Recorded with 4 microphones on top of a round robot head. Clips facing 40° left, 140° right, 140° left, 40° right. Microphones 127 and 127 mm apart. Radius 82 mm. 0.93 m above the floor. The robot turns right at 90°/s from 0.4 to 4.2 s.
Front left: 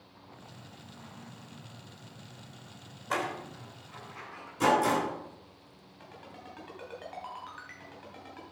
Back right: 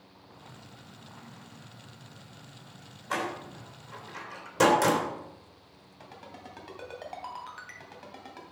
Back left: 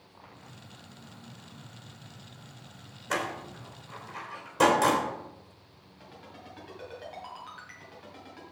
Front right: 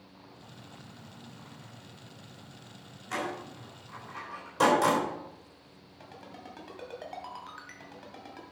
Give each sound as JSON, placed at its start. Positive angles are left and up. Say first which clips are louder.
{"t": 3.1, "sound": "a door slam", "louder": "even, back left 2 dB", "azimuth_deg": 125, "distance_m": 3.0}
{"t": 6.0, "sound": "a ringtone", "louder": "back right 2 dB, front right 2 dB", "azimuth_deg": -85, "distance_m": 2.5}